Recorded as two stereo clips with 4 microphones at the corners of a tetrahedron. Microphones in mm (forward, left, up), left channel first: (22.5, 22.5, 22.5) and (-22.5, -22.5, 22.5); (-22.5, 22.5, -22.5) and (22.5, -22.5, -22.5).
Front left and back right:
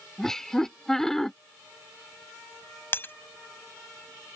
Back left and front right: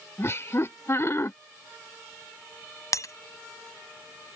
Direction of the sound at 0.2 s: 125° left.